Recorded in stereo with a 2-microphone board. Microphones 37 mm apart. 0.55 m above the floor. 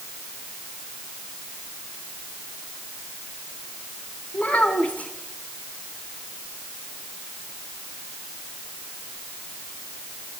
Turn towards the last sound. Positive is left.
turn(degrees=40)  # may be behind; listen again after turning